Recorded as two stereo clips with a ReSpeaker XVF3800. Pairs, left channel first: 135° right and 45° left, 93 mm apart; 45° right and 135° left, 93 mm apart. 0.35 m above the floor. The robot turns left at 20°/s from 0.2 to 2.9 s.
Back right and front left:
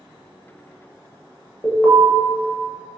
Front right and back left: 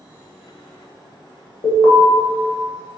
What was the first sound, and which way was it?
An alarm, 65° right.